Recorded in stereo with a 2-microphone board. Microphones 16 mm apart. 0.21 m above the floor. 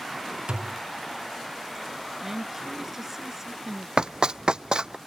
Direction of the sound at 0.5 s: 80° right.